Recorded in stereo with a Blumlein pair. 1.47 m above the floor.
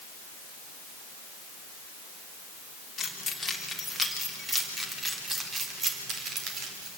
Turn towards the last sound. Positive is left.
turn(degrees=-30)